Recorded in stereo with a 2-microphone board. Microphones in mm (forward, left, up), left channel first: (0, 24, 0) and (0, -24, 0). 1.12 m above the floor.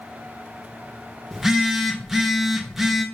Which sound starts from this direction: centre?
A phone buzzing, at 1.3 s.